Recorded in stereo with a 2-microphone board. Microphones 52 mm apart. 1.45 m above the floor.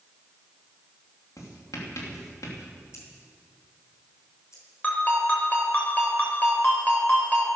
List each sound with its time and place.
1.4 s writing: 80° left, 3 m
2.9 s scissors: 65° left (ahead or behind), 4.5 m
4.8 s a ringtone: 30° left (ahead or behind), 4.5 m